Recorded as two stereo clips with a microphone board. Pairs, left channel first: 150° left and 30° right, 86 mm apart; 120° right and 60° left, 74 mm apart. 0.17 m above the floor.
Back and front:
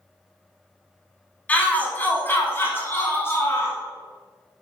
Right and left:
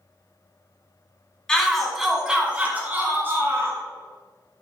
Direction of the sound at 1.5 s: Straight behind.